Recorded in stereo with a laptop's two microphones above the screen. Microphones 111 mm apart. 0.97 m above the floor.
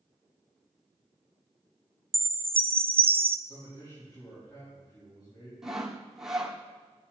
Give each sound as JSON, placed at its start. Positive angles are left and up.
{"t": 2.1, "sound": "a chime", "side_deg": -50, "distance_m": 0.5}
{"t": 3.5, "sound": "a man speaking", "side_deg": 45, "distance_m": 5.5}
{"t": 5.6, "sound": "sawing", "side_deg": -5, "distance_m": 1.5}